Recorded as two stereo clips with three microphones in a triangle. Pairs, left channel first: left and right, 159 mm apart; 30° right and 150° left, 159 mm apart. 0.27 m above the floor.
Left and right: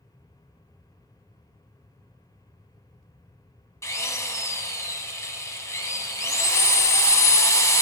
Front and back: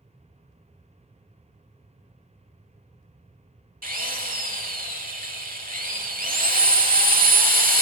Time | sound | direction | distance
3.8 | a drill | 155° left | 0.7 m